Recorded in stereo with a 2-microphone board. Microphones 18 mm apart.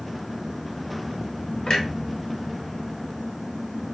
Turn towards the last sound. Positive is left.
turn(degrees=50)  # may be behind; listen again after turning